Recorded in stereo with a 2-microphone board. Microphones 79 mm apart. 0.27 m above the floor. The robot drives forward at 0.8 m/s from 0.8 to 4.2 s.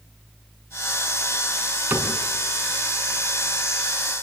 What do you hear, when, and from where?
1.9 s a cupboard door: 20° right (ahead or behind), 3.5 m